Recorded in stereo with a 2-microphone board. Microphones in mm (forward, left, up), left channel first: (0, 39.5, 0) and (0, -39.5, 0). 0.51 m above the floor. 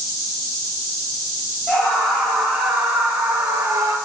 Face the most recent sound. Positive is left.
turn(degrees=-40)  # may be behind; listen again after turning